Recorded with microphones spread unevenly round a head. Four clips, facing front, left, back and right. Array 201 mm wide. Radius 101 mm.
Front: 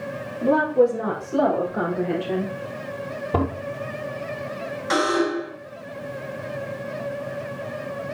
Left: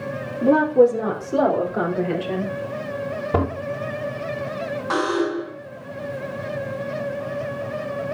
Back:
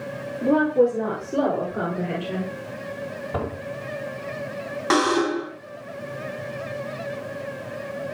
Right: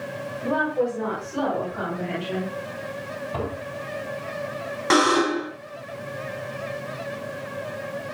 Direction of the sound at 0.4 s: 115° left.